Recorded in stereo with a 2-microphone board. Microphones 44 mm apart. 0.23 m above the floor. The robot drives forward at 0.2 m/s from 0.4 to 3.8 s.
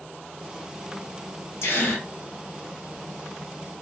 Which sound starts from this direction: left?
A gasp, at 1.6 s.